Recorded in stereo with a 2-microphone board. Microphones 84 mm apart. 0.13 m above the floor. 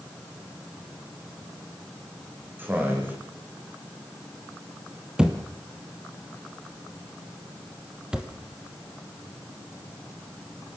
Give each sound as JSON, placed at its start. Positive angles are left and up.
{"t": 2.6, "sound": "a man speaking", "side_deg": -25, "distance_m": 7.5}
{"t": 5.2, "sound": "a thud", "side_deg": -10, "distance_m": 2.0}